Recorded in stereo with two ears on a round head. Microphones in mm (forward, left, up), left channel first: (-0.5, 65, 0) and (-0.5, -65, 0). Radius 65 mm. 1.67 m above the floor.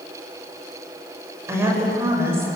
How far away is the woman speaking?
About 7.5 m.